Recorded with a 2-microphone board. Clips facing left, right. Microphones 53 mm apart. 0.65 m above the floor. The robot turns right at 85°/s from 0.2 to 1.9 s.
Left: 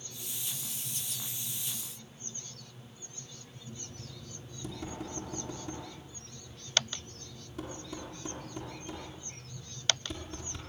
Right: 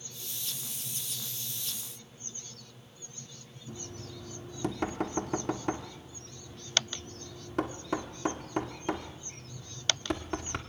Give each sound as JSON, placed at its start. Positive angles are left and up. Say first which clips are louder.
{"t": 3.7, "sound": "knocking", "louder": "right 5 dB", "side_deg": -55, "distance_m": 1.6}